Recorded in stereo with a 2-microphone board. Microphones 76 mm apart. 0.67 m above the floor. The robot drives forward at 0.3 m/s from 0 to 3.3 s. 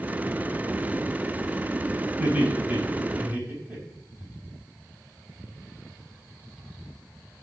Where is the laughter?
25° right (ahead or behind), 4.5 m; by 4.3 s 20° right (ahead or behind), 4.5 m.